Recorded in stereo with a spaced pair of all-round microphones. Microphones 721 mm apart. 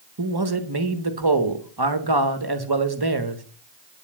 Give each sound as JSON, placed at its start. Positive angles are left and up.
{"t": 0.2, "sound": "a man speaking", "side_deg": -30, "distance_m": 1.2}